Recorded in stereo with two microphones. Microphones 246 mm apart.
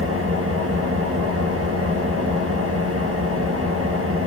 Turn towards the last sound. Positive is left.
turn(degrees=-65)  # may be behind; listen again after turning